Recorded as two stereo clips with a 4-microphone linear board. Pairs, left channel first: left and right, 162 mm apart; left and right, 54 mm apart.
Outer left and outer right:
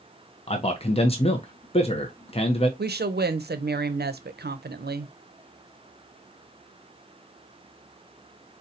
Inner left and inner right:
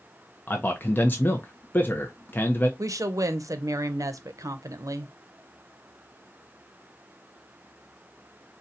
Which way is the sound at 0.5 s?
40° left (ahead or behind).